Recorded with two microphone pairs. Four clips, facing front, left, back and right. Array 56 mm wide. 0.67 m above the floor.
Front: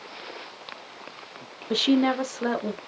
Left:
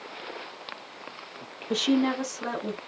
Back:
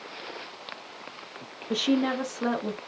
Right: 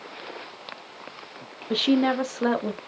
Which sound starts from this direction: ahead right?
A woman speaking, at 1.7 s.